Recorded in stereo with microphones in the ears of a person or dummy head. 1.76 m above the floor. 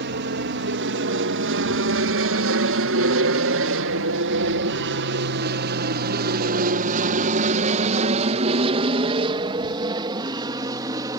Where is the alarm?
No alarm in this recording.